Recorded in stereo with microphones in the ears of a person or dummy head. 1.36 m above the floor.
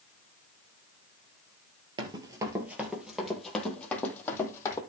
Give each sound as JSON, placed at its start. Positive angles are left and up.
{"t": 2.0, "sound": "running footsteps", "side_deg": -30, "distance_m": 2.0}